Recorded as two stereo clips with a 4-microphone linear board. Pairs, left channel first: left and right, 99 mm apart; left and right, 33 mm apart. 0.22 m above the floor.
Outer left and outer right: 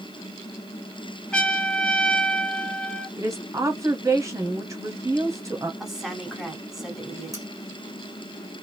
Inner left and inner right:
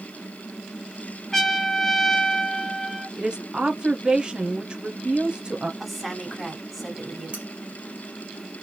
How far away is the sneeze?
I don't hear a sneeze.